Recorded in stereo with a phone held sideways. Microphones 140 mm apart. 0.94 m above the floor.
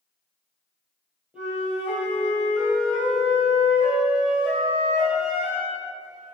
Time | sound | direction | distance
1.3 | a flute | 5° right (ahead or behind) | 2.5 m